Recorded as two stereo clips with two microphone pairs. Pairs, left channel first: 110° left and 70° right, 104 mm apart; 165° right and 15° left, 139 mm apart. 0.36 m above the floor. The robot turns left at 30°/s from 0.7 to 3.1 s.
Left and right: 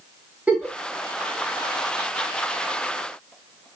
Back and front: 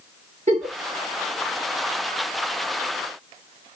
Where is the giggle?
5° left, 0.6 m.